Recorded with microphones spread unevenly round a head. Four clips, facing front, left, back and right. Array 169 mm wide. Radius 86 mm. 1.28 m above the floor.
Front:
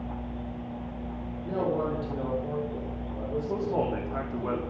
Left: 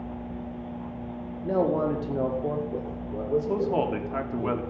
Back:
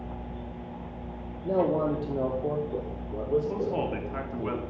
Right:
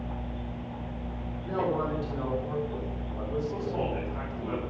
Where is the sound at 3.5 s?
70° left, 3.5 m.